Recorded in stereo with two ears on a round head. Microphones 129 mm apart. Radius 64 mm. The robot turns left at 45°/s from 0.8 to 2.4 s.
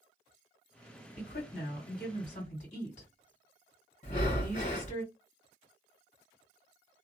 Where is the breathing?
55° left (ahead or behind), 1.0 m.